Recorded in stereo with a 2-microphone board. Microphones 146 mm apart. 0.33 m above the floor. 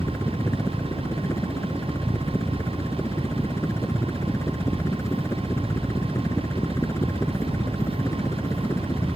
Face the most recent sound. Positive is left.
turn(degrees=20)  # may be behind; listen again after turning